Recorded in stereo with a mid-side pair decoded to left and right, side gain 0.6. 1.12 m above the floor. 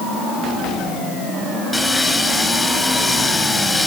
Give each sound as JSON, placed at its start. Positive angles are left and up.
{"t": 1.7, "sound": "sawing", "azimuth_deg": 10, "distance_m": 3.0}